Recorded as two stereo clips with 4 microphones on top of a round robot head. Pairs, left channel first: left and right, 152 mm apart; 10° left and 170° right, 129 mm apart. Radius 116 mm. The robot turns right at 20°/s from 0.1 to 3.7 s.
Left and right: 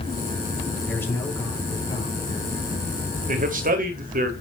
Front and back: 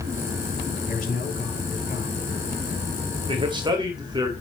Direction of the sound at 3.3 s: 120° right.